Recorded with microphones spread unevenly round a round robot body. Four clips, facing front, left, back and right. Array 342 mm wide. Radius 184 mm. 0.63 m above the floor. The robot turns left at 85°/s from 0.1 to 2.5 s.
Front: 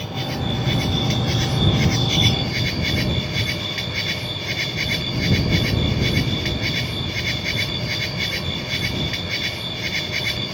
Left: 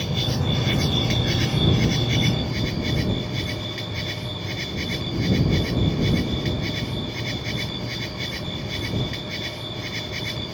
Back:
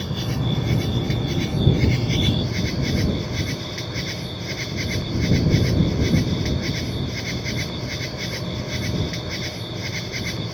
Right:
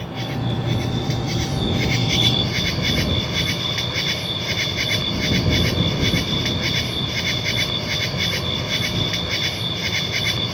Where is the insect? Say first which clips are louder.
Even, even; 130° left; by 10.5 s 75° right.